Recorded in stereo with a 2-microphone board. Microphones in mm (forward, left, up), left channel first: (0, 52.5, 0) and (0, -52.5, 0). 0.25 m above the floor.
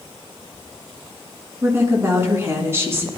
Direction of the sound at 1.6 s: 25° right (ahead or behind).